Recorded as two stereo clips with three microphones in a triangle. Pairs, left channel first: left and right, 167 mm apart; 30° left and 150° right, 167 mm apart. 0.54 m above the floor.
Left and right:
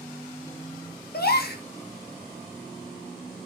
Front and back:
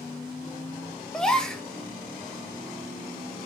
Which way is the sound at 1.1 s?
115° left.